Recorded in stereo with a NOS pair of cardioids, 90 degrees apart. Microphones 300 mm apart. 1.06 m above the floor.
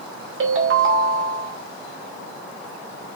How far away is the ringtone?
About 2.5 m.